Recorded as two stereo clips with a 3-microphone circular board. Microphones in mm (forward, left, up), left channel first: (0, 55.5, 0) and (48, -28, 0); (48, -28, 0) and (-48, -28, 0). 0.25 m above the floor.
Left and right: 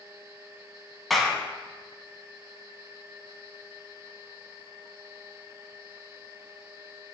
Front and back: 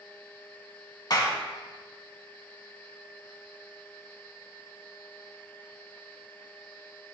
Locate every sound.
1.1 s a clap: 30° left, 1.8 m